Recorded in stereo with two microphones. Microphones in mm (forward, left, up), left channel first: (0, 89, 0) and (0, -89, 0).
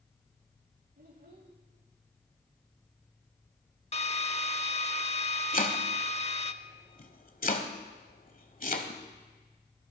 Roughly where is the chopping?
Left.